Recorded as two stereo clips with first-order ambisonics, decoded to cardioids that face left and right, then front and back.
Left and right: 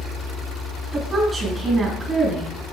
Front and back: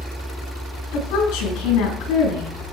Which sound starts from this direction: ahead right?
A woman speaking, at 0.9 s.